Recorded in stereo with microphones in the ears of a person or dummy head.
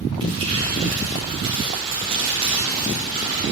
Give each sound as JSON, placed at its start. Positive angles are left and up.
{"t": 0.2, "sound": "crumpling", "side_deg": -30, "distance_m": 2.0}